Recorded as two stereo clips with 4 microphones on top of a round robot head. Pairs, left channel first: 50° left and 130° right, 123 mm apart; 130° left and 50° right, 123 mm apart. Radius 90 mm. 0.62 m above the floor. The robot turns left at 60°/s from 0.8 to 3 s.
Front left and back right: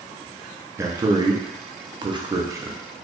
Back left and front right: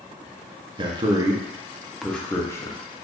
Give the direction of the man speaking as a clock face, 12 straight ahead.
2 o'clock.